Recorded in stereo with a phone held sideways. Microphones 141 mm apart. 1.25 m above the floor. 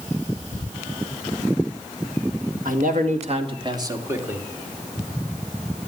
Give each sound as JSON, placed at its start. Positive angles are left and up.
{"t": 2.6, "sound": "a man speaking", "side_deg": -75, "distance_m": 2.0}